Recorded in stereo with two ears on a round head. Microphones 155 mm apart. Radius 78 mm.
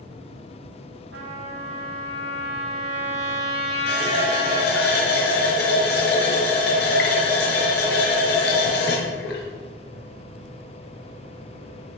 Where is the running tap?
75° left (ahead or behind), 5.5 m.